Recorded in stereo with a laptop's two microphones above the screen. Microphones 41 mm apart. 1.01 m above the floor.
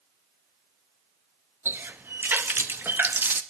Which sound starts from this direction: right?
A running tap, at 1.6 s.